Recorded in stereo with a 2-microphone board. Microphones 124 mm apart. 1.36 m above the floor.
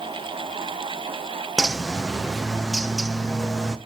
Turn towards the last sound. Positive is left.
turn(degrees=-5)  # may be behind; listen again after turning